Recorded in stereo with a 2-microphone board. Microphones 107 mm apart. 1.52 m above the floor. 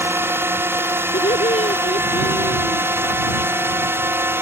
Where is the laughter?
85° left.